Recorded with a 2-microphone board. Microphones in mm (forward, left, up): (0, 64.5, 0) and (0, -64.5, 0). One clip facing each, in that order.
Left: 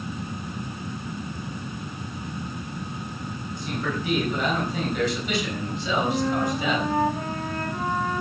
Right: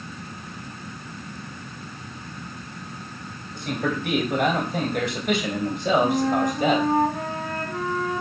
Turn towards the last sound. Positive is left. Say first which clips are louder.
# right 3 dB
turn(degrees=-65)  # may be behind; listen again after turning